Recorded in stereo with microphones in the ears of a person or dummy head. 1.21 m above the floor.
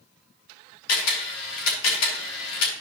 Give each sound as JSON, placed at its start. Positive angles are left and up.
{"t": 0.9, "sound": "a camera shutter", "side_deg": 75, "distance_m": 3.0}